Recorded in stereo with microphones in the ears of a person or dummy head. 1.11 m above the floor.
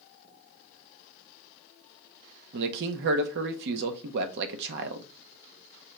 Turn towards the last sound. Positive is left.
turn(degrees=-60)  # may be behind; listen again after turning